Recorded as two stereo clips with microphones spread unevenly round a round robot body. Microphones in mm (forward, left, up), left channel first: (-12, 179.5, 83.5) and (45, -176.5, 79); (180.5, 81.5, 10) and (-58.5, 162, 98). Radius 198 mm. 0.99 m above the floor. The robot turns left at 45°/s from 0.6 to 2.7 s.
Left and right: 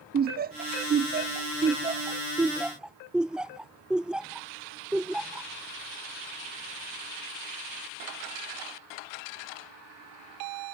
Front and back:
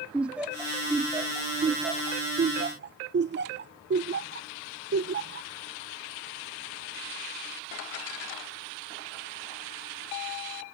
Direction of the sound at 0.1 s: 70° right.